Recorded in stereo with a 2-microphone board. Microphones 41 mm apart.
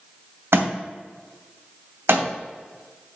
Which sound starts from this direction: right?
A thud, at 0.5 s.